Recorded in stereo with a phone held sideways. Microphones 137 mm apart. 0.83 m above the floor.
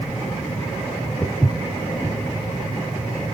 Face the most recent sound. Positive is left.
turn(degrees=5)  # may be behind; listen again after turning